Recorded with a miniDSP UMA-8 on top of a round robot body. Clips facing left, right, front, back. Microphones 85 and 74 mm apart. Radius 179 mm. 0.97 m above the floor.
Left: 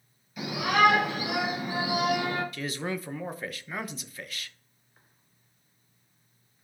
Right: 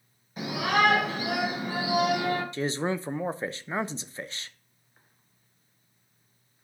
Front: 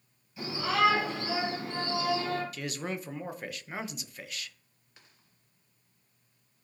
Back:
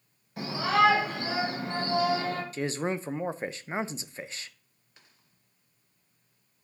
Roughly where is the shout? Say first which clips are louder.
Left 1 dB, back 4 dB; behind right.